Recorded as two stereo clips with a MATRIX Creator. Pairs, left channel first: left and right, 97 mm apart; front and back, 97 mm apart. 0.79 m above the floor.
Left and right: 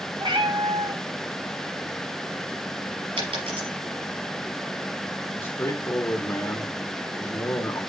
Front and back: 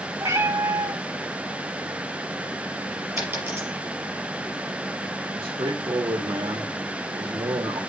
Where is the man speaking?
150° left, 1.5 m.